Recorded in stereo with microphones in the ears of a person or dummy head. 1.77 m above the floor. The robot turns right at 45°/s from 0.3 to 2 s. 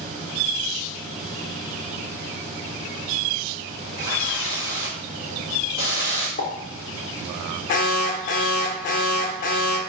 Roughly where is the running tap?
Right.